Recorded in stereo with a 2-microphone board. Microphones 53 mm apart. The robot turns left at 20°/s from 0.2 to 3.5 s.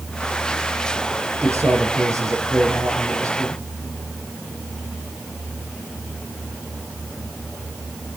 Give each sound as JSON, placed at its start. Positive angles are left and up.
{"t": 1.4, "sound": "a man speaking", "azimuth_deg": -65, "distance_m": 5.0}